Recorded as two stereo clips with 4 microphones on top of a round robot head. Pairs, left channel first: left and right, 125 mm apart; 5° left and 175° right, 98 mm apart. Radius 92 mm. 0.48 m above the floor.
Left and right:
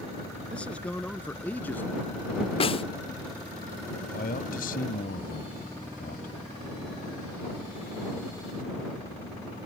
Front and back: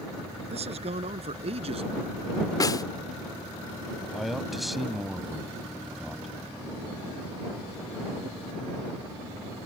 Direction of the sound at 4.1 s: 100° left.